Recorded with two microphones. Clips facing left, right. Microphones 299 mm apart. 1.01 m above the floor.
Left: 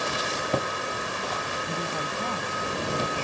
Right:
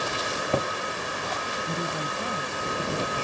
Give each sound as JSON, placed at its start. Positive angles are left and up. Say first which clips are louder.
{"t": 1.7, "sound": "a woman speaking", "louder": "right 2 dB", "side_deg": -10}